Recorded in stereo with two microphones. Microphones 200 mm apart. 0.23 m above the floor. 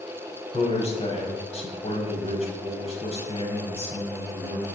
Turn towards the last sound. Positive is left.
turn(degrees=30)  # may be behind; listen again after turning